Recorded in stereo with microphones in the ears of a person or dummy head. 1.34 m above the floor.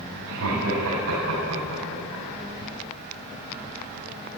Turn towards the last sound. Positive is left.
turn(degrees=-85)